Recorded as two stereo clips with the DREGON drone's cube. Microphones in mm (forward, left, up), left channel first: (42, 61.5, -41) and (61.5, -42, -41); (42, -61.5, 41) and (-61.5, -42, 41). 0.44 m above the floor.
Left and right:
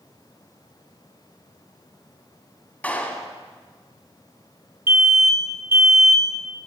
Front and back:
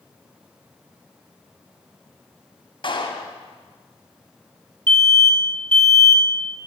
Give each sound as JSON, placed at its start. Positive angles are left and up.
{"t": 2.8, "sound": "a clap", "azimuth_deg": 25, "distance_m": 2.0}
{"t": 4.9, "sound": "an alarm", "azimuth_deg": -55, "distance_m": 1.6}